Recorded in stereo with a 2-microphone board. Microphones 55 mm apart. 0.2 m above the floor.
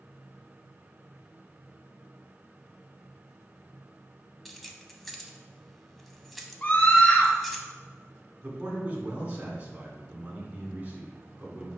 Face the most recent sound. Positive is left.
turn(degrees=-30)  # may be behind; listen again after turning